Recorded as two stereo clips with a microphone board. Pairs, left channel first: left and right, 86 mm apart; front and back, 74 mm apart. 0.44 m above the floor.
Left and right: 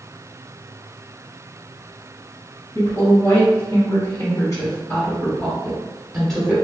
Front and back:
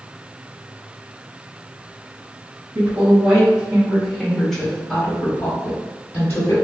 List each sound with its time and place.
2.8 s a woman speaking: 110° left, 1.8 m; by 6.5 s 5° right, 1.3 m